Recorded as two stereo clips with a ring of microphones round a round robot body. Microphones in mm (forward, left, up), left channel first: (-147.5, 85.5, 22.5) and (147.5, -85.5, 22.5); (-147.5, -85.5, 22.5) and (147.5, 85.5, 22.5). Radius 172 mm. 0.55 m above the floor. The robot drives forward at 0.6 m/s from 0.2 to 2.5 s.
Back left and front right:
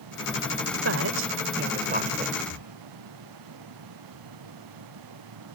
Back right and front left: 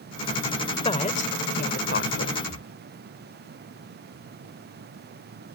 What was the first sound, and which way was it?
A woman speaking, 75° right.